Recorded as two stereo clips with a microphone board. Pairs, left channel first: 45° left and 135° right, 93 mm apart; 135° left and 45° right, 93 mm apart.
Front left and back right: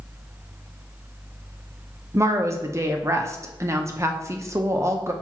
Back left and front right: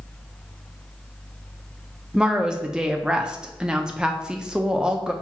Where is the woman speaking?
120° right, 0.5 m.